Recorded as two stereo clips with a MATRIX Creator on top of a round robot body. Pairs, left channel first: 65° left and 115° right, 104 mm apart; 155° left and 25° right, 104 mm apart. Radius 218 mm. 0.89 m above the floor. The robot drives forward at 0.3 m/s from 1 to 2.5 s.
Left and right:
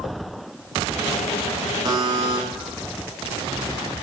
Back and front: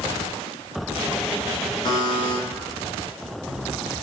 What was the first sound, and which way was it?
A buzzer, 160° right.